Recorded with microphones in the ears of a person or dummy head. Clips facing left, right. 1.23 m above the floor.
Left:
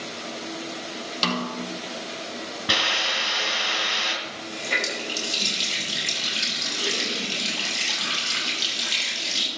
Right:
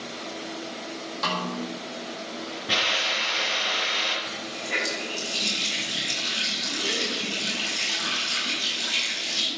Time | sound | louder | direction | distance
1.2 | a snare drum | left 3 dB | 40° left (ahead or behind) | 1.9 m
2.7 | a hiss | left 1 dB | 70° left (ahead or behind) | 4.5 m
4.2 | a running tap | left 1 dB | 60° left (ahead or behind) | 5 m